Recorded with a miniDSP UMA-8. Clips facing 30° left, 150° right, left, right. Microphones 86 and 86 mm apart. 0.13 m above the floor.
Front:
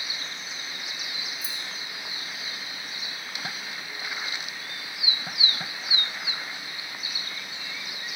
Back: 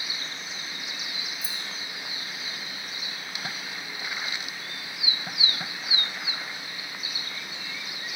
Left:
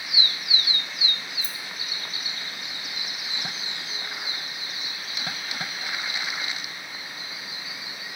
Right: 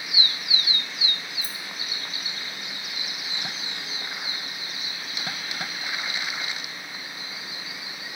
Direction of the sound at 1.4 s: 160° right.